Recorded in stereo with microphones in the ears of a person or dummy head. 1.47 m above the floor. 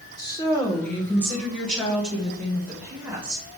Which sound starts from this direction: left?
A woman speaking, at 0.2 s.